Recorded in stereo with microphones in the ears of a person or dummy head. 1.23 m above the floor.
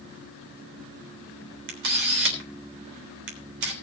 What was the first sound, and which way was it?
A camera shutter, 70° right (ahead or behind).